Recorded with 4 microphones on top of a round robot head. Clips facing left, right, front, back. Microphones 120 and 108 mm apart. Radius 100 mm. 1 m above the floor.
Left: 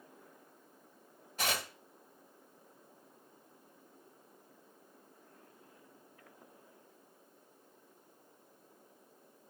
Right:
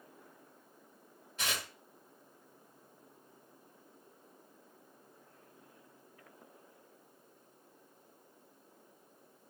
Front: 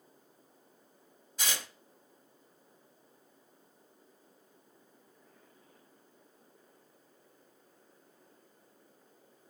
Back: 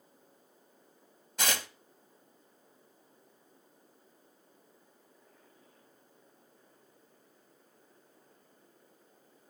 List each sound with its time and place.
1.4 s tearing paper: 155° left, 1.5 m